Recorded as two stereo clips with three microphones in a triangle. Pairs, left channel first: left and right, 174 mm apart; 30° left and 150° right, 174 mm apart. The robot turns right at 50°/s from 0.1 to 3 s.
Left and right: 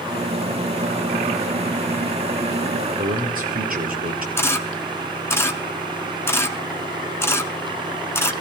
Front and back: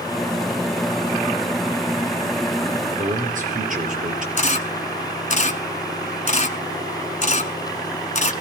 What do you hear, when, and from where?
3.0 s a man speaking: 115° right, 4 m
4.4 s a camera shutter: 20° left, 1.2 m